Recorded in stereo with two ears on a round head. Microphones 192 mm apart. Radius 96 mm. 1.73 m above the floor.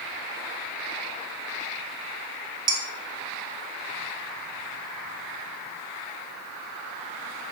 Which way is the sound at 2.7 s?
20° right (ahead or behind).